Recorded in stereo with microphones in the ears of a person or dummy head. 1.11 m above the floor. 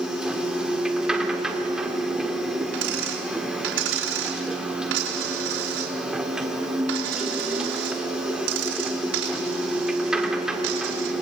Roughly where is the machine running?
Centre.